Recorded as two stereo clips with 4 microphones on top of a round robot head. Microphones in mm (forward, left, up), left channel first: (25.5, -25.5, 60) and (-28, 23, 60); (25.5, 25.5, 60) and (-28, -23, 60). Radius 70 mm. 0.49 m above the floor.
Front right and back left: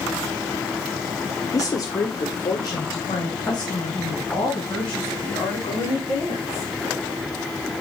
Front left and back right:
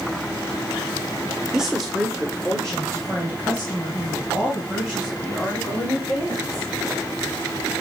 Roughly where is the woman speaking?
Ahead right.